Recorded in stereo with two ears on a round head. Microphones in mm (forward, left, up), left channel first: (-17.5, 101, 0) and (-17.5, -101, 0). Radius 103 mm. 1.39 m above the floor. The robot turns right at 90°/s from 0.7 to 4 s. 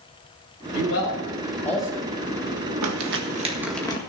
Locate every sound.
0.7 s a man speaking: 85° left, 6 m; by 2.1 s 25° right (ahead or behind), 6 m
2.8 s crumpling: 80° right, 1.7 m; by 4.0 s 25° left (ahead or behind), 1.7 m